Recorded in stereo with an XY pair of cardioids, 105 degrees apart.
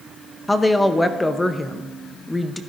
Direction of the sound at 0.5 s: 15° left.